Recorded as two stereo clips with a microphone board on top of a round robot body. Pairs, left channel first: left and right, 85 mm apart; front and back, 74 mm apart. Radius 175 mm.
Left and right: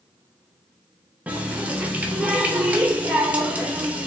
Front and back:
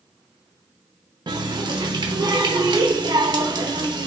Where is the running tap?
165° right, 0.9 m.